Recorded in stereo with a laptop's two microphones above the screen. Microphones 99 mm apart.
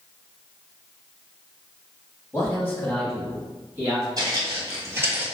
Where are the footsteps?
40° right (ahead or behind), 1.5 m; by 5.2 s 15° right (ahead or behind), 0.9 m.